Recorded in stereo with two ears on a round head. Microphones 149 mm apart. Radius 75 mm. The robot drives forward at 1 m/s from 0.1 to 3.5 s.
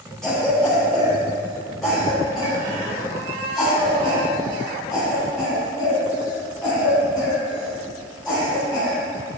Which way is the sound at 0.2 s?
5° left (ahead or behind).